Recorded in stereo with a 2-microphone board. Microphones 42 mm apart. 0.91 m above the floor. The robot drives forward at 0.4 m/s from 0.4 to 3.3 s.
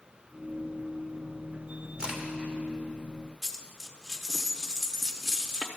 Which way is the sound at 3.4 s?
10° right (ahead or behind).